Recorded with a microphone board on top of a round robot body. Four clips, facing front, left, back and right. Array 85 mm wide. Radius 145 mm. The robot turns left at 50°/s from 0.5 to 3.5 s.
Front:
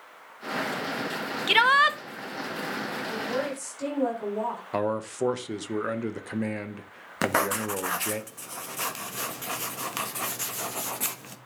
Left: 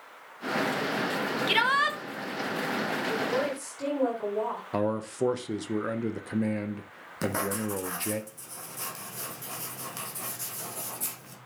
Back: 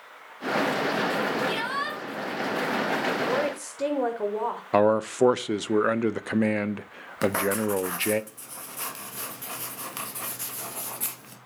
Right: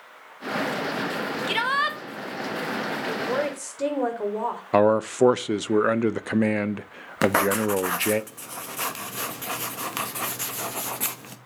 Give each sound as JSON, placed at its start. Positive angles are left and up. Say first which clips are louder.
{"t": 1.5, "sound": "a shout", "louder": "even, front 8 dB", "azimuth_deg": 10, "distance_m": 1.6}
{"t": 3.1, "sound": "a woman speaking", "louder": "right 3 dB, back 4 dB", "azimuth_deg": -120, "distance_m": 4.5}
{"t": 4.7, "sound": "a man speaking", "louder": "right 11 dB, back 9 dB", "azimuth_deg": -125, "distance_m": 0.8}
{"t": 7.2, "sound": "writing", "louder": "right 9 dB, back 1 dB", "azimuth_deg": -65, "distance_m": 1.6}